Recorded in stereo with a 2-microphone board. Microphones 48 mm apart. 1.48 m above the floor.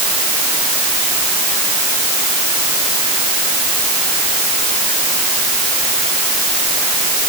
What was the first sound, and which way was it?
Only background noise.